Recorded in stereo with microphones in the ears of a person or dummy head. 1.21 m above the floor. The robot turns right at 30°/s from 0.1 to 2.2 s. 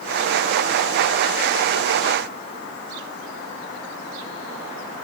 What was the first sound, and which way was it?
Only background noise.